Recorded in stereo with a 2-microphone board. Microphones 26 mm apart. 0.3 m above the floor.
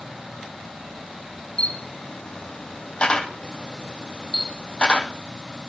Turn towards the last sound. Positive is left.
turn(degrees=40)  # may be behind; listen again after turning